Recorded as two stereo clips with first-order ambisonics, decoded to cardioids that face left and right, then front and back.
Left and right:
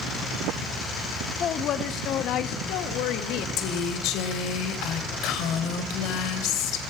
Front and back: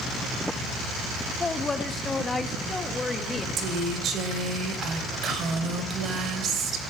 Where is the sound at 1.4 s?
65° left, 1.1 m; by 3.5 s 75° left, 1.9 m.